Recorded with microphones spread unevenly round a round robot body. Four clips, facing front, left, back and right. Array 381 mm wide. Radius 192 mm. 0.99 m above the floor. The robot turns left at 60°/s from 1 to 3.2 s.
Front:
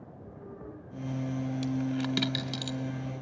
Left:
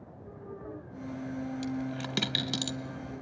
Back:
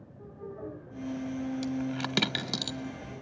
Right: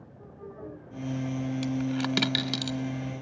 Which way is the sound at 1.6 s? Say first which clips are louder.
Right 6 dB, front 2 dB; 125° right.